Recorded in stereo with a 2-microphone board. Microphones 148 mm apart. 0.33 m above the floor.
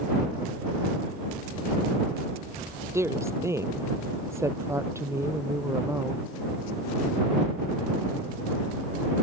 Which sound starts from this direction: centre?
A woman speaking, at 2.9 s.